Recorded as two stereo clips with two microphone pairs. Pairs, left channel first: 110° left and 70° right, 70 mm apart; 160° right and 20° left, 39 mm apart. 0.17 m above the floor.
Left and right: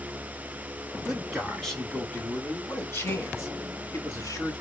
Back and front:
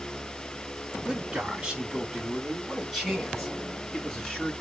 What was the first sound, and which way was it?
A man speaking, straight ahead.